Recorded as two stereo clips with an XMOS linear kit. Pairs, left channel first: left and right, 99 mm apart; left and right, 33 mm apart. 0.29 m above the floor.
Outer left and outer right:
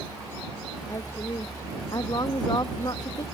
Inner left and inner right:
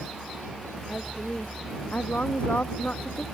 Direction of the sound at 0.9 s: 40° left (ahead or behind).